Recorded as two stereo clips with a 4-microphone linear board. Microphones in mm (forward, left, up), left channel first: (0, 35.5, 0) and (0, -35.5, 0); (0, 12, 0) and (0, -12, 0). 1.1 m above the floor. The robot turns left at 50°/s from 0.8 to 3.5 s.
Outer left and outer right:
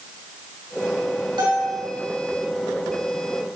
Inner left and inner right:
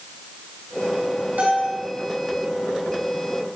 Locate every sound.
1.4 s a bell: 80° right, 4.5 m; by 1.8 s 65° right (ahead or behind), 4.5 m